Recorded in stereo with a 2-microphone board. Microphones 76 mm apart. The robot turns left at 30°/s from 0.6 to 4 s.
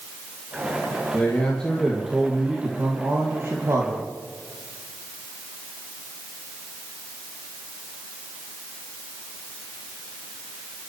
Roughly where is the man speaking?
Ahead left.